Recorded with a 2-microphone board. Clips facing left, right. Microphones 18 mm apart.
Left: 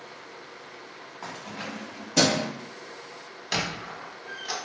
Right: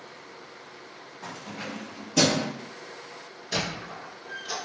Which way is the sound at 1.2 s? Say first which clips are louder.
Even; 60° left (ahead or behind).